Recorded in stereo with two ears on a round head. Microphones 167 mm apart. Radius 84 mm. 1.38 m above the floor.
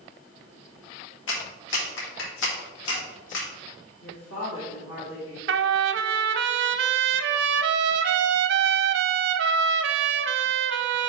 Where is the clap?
75° left (ahead or behind), 1.9 m.